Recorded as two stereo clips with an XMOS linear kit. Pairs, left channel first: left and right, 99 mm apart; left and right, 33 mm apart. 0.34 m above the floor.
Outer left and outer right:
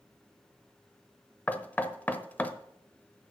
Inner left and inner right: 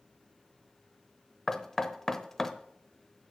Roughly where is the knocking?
Centre.